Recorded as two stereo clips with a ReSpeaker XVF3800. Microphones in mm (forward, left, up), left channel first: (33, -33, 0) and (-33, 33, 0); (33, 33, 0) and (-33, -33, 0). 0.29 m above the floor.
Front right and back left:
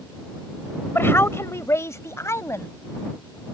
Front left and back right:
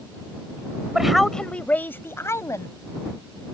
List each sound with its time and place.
0.9 s a woman speaking: 60° right; by 2.7 s 5° left